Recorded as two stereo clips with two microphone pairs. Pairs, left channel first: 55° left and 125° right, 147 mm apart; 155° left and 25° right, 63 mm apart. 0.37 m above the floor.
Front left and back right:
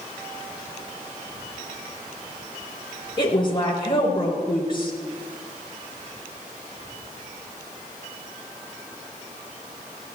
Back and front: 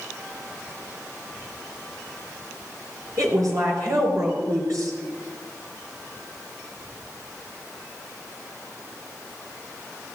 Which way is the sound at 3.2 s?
Straight ahead.